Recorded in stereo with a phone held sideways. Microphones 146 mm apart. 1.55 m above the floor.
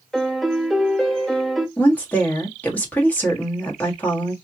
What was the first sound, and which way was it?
A piano, centre (ahead or behind).